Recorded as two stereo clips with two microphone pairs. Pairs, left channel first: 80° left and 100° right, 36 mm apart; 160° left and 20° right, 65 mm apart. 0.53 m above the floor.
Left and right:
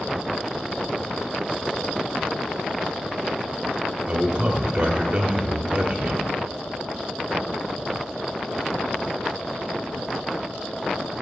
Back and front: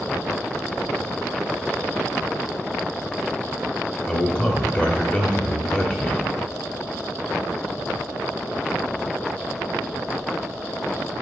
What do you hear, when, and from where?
4.1 s a man speaking: 145° right, 1.2 m